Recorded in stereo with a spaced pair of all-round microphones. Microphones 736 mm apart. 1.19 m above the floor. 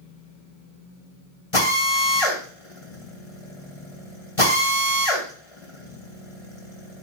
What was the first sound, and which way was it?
A drill, 45° left (ahead or behind).